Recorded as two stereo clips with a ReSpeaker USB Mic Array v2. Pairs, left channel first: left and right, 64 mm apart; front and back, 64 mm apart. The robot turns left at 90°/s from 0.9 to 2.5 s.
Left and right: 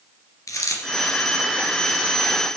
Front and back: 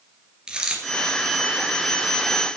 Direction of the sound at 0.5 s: 105° left.